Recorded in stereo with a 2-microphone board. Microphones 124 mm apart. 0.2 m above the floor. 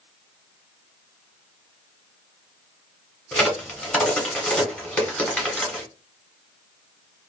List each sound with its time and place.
3.3 s a crack: 10° left (ahead or behind), 1.2 m